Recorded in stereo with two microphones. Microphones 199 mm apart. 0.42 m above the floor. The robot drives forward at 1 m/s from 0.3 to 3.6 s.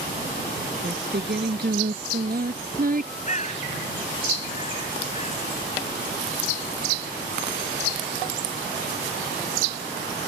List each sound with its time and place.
0.8 s singing: 60° right (ahead or behind); by 3.1 s 45° right (ahead or behind)
3.2 s a bird: 40° left (ahead or behind); by 5.5 s 35° left (ahead or behind)